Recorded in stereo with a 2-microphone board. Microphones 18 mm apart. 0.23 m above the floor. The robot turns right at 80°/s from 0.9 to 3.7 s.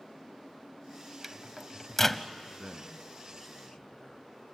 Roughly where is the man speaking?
Right.